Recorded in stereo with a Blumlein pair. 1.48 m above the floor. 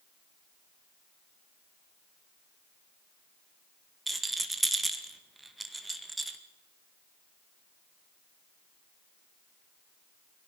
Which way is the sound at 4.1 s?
5° right.